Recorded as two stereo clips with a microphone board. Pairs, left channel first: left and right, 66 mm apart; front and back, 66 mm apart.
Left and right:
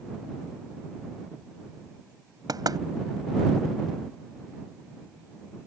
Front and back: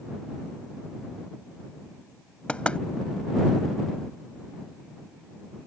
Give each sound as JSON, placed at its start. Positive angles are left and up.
{"t": 2.5, "sound": "knocking", "azimuth_deg": -75}